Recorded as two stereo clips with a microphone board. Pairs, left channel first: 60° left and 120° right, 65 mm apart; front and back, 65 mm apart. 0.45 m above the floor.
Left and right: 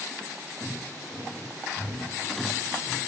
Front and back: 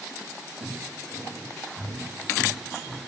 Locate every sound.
0.6 s footsteps: 145° left, 7 m; by 3.0 s 150° left, 8 m